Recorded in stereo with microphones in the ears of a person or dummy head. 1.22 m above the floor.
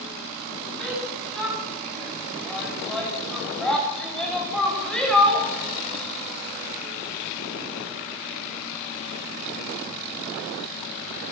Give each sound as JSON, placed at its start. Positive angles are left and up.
{"t": 0.8, "sound": "a shout", "side_deg": 5, "distance_m": 9.5}